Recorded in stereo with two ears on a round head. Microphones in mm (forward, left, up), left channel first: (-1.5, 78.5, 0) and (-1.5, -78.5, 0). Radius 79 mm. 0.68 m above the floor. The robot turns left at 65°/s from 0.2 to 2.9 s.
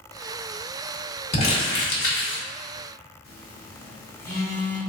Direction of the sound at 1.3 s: 145° left.